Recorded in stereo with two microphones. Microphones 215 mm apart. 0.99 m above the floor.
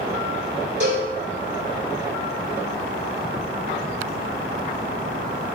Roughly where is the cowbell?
Right.